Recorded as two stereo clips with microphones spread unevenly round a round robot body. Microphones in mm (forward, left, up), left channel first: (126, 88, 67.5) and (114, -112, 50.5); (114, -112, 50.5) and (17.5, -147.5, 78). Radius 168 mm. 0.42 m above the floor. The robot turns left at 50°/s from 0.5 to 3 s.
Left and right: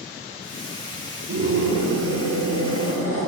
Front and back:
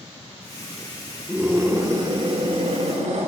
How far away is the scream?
About 6.5 m.